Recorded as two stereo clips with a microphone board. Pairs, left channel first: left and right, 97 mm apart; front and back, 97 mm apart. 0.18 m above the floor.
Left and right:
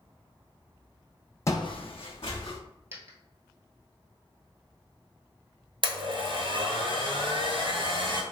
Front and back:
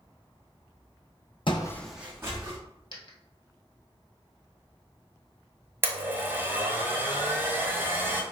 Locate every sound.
1.5 s footsteps: 30° left, 0.5 m; by 2.6 s 125° left, 1.2 m
2.9 s a dropped coin: 30° right, 1.0 m
5.8 s a blender: 115° right, 0.8 m